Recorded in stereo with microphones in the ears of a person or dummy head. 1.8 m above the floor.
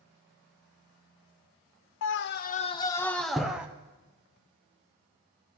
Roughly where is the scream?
Left.